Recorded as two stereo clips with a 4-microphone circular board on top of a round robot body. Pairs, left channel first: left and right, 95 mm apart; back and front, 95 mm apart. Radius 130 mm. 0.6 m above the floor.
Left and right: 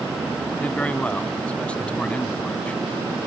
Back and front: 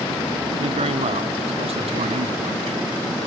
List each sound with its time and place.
0.6 s a man speaking: 10° left